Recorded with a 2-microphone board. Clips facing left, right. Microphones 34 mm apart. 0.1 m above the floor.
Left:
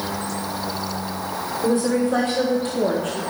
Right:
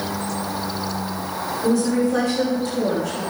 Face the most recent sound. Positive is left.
turn(degrees=50)  # may be behind; listen again after turning